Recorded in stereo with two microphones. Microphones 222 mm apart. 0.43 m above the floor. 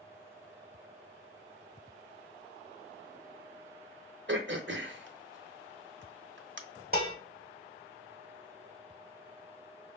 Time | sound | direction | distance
4.3 | throat clearing | 55° right (ahead or behind) | 0.6 m
6.9 | dishes clattering | 45° right (ahead or behind) | 0.9 m